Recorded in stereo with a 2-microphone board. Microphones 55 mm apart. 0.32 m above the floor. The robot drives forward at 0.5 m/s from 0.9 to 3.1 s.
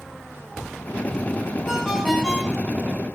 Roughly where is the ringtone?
Centre.